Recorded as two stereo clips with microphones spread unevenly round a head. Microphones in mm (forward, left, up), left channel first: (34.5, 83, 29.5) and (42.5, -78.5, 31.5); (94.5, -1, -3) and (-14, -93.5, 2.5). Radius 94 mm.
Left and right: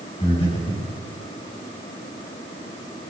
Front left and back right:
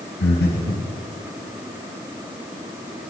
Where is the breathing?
35° left, 7.5 m.